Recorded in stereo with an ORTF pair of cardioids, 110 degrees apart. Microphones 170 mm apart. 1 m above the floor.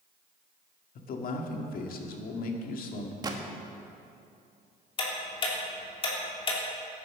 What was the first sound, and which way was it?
A man speaking, 60° left.